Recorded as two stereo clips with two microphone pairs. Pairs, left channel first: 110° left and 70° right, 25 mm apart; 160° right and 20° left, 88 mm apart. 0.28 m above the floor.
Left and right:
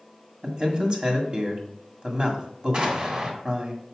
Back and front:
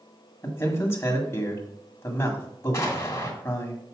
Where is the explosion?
105° right, 2.5 m.